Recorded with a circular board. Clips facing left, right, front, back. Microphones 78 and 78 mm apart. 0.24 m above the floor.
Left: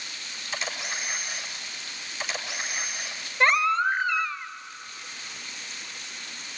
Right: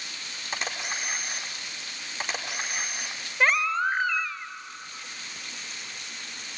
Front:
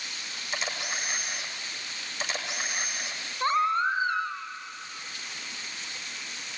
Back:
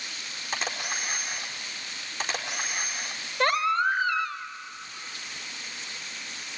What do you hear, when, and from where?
0.5 s a camera shutter: 135° right, 4.5 m
3.4 s a baby crying: 175° right, 1.8 m